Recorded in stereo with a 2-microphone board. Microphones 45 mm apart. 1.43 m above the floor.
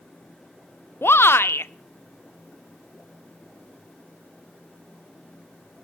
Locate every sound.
1.0 s a shout: 60° left (ahead or behind), 0.6 m